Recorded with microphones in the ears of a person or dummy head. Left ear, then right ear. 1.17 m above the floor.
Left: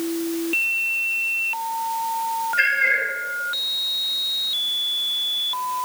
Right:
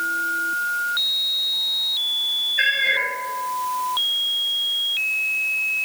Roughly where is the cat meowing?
Left.